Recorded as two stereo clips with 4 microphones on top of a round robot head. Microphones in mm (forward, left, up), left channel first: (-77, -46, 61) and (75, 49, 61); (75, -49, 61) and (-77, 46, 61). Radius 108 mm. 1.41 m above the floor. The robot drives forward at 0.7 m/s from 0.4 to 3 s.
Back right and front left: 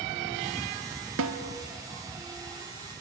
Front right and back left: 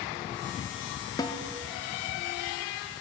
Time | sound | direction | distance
1.2 | a snare drum | 40° left | 1.3 m